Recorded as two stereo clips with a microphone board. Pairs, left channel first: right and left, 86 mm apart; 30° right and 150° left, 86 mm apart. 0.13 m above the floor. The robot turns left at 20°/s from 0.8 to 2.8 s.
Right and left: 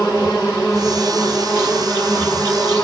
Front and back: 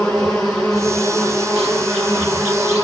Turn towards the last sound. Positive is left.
turn(degrees=-145)